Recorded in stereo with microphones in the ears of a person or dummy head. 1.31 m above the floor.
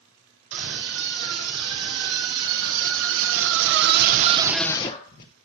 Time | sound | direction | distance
0.5 | a scream | 90° right | 4.5 m